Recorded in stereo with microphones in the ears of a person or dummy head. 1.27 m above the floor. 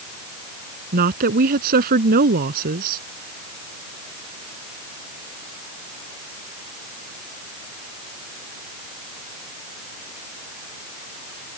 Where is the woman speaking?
55° right (ahead or behind).